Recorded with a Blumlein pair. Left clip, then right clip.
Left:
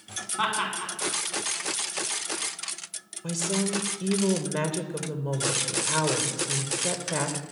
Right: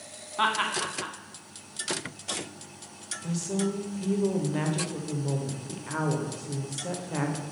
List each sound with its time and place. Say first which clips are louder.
0.4 s laughter: right 2 dB; 10° right, 1.3 m
3.2 s a woman speaking: left 3 dB; 10° left, 0.7 m